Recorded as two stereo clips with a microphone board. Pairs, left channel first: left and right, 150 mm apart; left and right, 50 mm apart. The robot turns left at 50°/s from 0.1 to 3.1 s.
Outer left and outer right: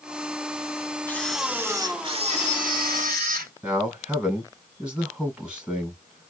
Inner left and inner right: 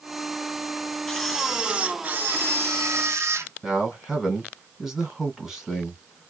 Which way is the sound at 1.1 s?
10° left.